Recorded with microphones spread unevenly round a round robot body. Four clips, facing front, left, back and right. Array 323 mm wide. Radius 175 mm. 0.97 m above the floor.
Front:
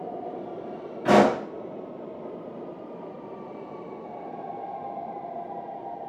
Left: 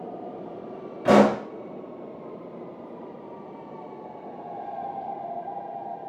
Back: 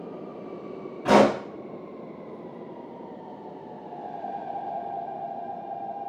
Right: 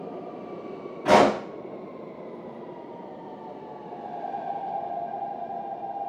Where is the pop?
110° left, 2.5 m.